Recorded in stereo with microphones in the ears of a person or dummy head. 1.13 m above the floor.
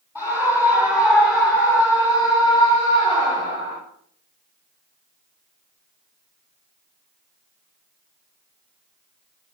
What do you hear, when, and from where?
0.1 s a scream: 15° left (ahead or behind), 9 m; by 3.8 s 25° left (ahead or behind), 7.5 m